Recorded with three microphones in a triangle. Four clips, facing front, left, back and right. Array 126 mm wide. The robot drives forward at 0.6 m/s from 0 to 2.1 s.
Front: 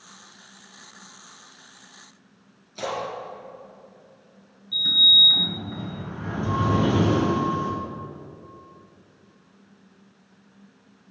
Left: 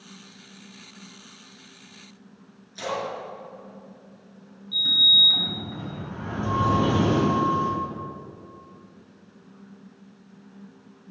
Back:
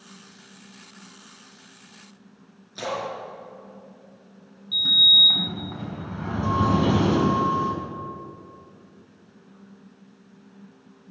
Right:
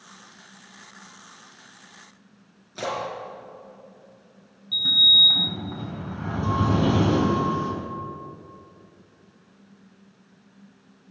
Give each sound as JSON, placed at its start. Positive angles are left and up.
{"t": 2.8, "sound": "a splash", "azimuth_deg": -110, "distance_m": 6.0}
{"t": 4.7, "sound": "a sliding door", "azimuth_deg": -150, "distance_m": 3.5}